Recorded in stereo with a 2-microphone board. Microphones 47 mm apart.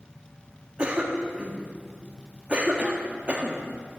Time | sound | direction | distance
0.8 | a cough | 25° right (ahead or behind) | 1.2 m